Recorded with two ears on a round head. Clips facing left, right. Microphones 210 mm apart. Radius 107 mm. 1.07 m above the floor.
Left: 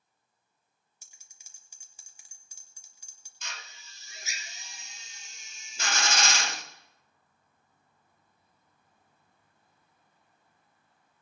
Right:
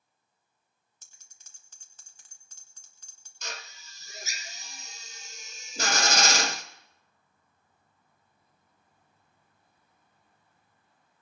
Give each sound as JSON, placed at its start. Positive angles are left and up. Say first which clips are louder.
{"t": 1.0, "sound": "a bell", "louder": "even", "side_deg": 10, "distance_m": 1.6}
{"t": 3.4, "sound": "a drill", "louder": "right 6 dB", "side_deg": -35, "distance_m": 0.7}